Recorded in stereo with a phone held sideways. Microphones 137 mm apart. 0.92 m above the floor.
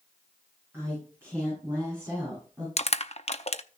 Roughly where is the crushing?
Left.